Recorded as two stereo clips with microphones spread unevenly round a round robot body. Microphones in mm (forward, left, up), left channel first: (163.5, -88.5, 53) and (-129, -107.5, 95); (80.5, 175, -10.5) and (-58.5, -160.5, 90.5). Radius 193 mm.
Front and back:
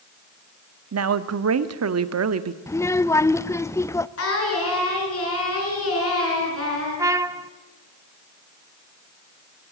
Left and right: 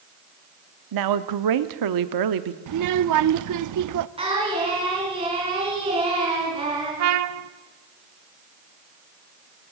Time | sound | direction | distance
0.9 | a woman speaking | 150° right | 1.2 m
2.7 | a child speaking | 70° right | 0.7 m
4.2 | singing | 35° right | 6 m
7.0 | a trumpet | 105° right | 0.6 m